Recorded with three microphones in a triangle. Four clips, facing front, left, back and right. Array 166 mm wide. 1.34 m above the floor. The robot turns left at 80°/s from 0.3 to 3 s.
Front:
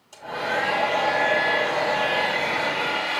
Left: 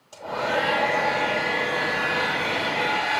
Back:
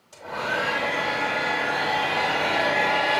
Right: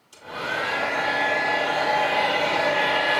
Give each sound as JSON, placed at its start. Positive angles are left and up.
{"t": 0.1, "sound": "a hair dryer", "azimuth_deg": 95, "distance_m": 9.0}